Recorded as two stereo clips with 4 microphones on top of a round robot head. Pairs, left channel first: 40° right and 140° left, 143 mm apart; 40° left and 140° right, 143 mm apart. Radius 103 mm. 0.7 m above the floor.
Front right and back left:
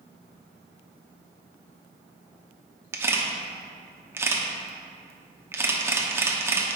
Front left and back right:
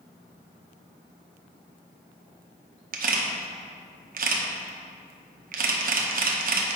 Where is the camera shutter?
150° right, 0.9 m.